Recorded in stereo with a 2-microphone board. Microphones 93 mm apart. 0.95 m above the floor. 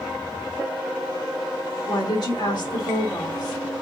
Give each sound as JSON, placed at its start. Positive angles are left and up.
{"t": 1.9, "sound": "a woman speaking", "side_deg": 50, "distance_m": 1.5}